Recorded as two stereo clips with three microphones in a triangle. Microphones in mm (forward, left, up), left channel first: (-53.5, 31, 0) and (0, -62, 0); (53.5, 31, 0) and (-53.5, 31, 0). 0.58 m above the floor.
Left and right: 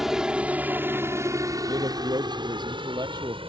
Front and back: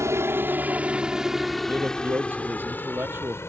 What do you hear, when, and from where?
0.0 s a helicopter: 145° right; by 3.5 s 60° right
1.7 s a man speaking: 110° right